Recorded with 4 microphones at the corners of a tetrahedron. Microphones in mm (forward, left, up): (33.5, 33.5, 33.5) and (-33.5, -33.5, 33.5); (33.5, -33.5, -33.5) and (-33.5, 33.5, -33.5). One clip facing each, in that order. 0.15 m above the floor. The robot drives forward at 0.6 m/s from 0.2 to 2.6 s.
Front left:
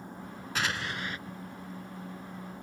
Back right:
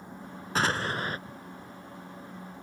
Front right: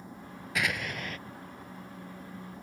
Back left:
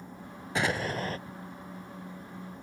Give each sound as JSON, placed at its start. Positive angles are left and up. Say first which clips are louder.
{"t": 0.6, "sound": "an explosion", "louder": "back right 5 dB, back left 4 dB", "azimuth_deg": -175}